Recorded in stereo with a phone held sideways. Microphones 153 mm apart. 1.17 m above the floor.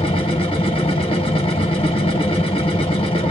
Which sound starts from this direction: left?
A machine running, at 0.0 s.